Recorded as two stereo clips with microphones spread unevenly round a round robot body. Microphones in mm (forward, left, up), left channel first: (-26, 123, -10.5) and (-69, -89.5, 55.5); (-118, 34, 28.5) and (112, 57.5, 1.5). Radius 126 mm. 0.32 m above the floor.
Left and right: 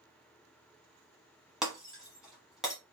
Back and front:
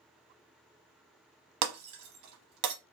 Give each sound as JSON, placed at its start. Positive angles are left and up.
{"t": 1.6, "sound": "breaking glass", "azimuth_deg": -10, "distance_m": 0.7}